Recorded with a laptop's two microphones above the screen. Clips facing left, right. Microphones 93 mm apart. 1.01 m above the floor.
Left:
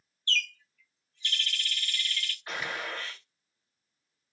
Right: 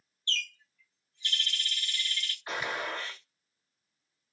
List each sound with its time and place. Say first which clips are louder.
0.3 s a bird: left 5 dB; 20° right (ahead or behind), 0.6 m
2.5 s a gunshot: right 2 dB; 20° right (ahead or behind), 1.0 m